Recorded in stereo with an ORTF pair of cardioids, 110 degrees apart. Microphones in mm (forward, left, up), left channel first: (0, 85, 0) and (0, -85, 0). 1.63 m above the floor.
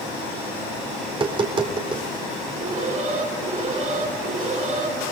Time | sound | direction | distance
1.1 | tapping | 30° right | 4 m
2.6 | an alarm | 50° right | 9.5 m